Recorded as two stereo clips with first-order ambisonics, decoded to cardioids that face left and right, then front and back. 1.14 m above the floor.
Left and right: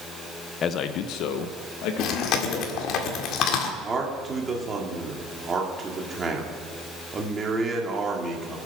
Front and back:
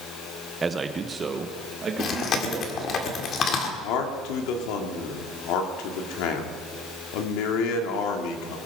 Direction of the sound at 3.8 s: 15° right.